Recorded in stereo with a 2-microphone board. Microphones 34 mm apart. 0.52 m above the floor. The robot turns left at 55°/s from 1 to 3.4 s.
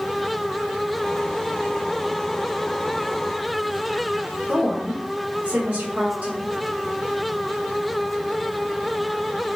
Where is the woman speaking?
55° right (ahead or behind), 1.9 m.